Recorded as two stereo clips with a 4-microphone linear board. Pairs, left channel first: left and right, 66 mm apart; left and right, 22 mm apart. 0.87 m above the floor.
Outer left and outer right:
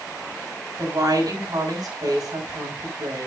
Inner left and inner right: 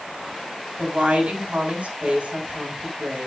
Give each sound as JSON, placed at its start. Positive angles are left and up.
{"t": 0.8, "sound": "a woman speaking", "side_deg": -70, "distance_m": 6.0}